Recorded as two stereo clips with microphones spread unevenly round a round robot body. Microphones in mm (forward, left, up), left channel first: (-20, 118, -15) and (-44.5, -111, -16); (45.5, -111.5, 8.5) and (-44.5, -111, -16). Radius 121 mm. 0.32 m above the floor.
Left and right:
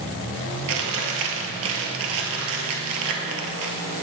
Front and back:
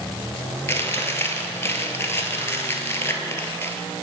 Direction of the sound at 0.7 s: 60° right.